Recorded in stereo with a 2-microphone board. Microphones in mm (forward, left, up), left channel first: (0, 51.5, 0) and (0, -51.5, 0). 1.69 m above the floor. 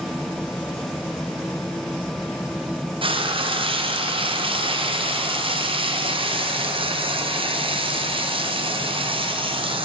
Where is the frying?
55° right (ahead or behind), 0.6 m.